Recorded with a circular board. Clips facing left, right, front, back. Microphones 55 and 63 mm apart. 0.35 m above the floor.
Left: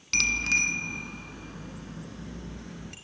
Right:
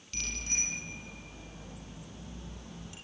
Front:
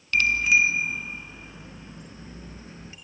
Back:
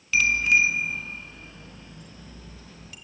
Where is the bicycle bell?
95° left, 2.5 m; by 3.0 s 60° left, 4 m.